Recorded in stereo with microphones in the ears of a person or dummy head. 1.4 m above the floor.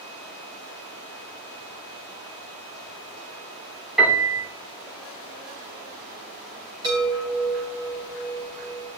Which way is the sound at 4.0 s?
Centre (ahead or behind).